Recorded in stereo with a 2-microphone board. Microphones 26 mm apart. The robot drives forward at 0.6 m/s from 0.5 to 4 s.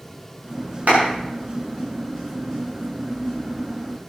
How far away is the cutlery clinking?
No cutlery clinking in this recording.